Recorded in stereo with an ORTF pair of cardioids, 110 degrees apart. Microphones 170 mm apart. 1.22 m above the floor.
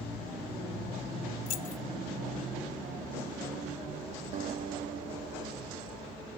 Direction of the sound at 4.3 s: 55° right.